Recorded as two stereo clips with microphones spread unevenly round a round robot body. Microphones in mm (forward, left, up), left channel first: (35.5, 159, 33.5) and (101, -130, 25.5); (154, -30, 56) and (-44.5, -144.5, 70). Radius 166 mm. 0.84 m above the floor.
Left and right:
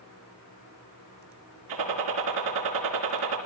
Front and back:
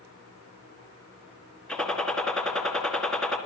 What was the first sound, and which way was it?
A gunshot, 60° right.